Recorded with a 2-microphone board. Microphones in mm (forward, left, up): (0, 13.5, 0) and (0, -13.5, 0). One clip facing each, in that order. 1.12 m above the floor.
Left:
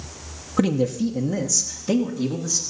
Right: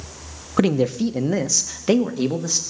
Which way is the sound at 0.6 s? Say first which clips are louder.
Right 2 dB; 20° right (ahead or behind).